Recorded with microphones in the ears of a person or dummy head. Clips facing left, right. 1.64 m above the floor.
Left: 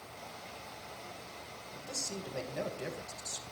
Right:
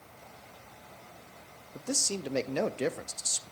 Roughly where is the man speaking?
Right.